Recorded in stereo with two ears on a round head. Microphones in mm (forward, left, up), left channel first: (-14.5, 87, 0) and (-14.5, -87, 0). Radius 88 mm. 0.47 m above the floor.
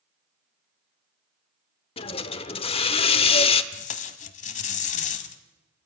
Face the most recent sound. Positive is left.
turn(degrees=35)  # may be behind; listen again after turning